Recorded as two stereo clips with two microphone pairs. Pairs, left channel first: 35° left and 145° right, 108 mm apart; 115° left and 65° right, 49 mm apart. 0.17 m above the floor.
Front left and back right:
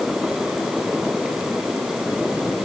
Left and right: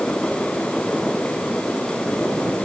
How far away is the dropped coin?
I don't hear a dropped coin.